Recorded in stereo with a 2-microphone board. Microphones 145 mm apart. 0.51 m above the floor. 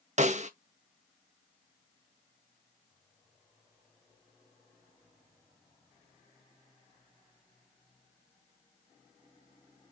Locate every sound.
0.2 s a snare drum: 55° right (ahead or behind), 0.7 m